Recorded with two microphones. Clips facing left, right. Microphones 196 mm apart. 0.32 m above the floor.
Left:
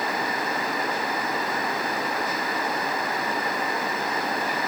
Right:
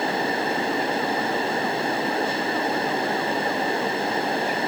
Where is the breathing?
I don't hear breathing.